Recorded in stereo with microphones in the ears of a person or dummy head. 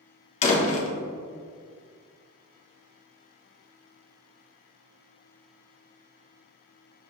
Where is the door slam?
45° left (ahead or behind), 0.8 m.